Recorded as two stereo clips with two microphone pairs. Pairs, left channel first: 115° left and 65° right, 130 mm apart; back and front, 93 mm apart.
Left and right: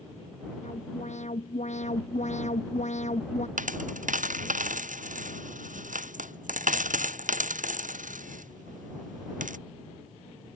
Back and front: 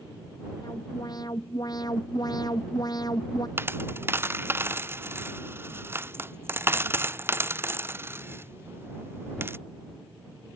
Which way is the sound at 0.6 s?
135° left.